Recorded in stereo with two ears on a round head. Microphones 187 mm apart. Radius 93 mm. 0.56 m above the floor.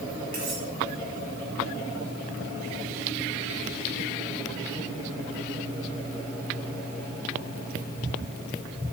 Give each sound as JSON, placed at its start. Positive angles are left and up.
{"t": 0.3, "sound": "cutlery clinking", "side_deg": -45, "distance_m": 8.0}